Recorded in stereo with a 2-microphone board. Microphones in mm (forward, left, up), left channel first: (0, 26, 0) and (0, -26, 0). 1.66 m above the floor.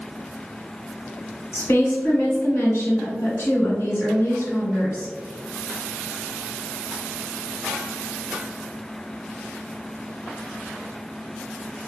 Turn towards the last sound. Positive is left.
turn(degrees=60)  # may be behind; listen again after turning